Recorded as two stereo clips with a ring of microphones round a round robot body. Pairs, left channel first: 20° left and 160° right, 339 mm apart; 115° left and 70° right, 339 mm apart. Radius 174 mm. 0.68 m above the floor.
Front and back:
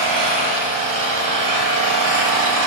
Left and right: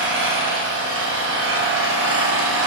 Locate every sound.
0.0 s an engine running: 120° right, 3 m